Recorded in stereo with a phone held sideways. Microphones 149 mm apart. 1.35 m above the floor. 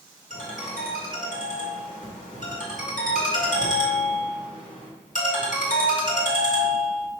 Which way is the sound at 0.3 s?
55° left (ahead or behind).